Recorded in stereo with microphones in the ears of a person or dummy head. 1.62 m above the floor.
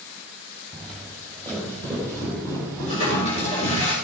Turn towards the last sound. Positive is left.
turn(degrees=40)  # may be behind; listen again after turning